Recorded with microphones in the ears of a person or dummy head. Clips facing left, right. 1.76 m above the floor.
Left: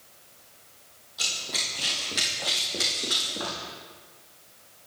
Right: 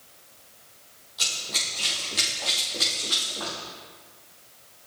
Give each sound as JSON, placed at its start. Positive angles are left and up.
{"t": 1.2, "sound": "running footsteps", "side_deg": 0, "distance_m": 2.5}